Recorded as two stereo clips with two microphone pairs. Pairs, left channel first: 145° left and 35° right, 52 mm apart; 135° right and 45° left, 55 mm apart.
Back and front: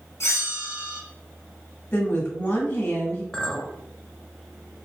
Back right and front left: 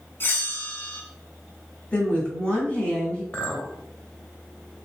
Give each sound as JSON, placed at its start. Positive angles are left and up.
{"t": 0.2, "sound": "a bell", "azimuth_deg": 170, "distance_m": 1.0}
{"t": 1.9, "sound": "a woman speaking", "azimuth_deg": 160, "distance_m": 2.0}
{"t": 3.3, "sound": "a clink", "azimuth_deg": -160, "distance_m": 0.7}